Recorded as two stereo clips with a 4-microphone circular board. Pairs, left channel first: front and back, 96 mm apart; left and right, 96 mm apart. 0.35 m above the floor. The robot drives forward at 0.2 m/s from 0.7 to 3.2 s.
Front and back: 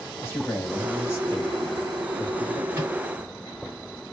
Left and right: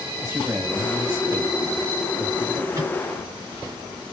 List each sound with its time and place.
0.2 s a man speaking: 45° right, 1.6 m; by 2.6 s 60° right, 1.5 m
2.7 s a microwave: 125° right, 1.5 m